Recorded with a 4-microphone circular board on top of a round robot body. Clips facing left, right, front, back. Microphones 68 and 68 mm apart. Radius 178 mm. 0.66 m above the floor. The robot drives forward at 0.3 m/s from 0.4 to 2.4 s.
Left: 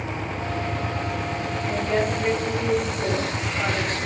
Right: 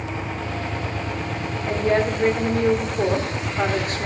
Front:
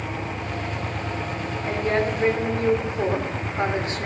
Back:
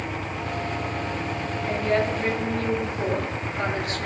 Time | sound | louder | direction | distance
1.7 | a woman speaking | right 4 dB, even | 55° right | 2.5 m